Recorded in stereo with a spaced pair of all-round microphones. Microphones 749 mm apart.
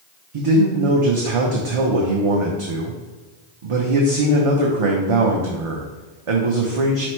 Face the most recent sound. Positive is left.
turn(degrees=-50)  # may be behind; listen again after turning